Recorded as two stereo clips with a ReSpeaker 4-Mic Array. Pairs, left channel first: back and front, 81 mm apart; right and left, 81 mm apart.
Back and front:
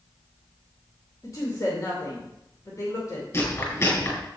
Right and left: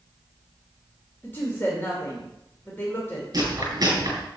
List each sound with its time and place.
1.2 s a woman speaking: 145° right, 2 m
3.3 s chewing: 130° left, 4.5 m